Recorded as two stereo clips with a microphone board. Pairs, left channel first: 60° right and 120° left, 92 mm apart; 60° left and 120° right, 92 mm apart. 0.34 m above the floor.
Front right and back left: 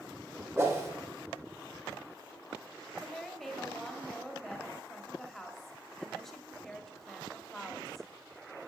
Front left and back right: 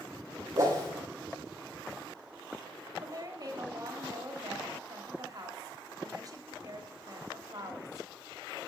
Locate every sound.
0.6 s a whoosh: 175° right, 2.5 m
3.0 s a woman speaking: 145° right, 1.3 m